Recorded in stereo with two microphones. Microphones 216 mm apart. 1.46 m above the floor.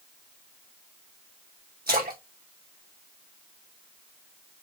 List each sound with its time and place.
1.9 s a splash: 45° right (ahead or behind), 2 m